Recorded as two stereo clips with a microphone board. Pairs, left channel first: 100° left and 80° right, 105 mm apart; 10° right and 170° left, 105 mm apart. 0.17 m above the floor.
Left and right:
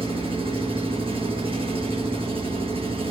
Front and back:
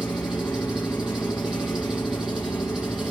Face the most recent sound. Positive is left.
turn(degrees=-105)